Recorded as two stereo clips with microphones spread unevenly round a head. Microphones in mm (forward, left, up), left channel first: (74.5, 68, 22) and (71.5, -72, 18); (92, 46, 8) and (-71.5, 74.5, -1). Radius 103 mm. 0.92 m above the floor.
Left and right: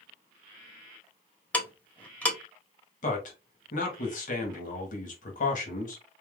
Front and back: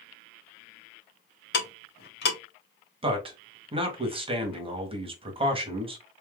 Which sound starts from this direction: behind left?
A man speaking, at 3.0 s.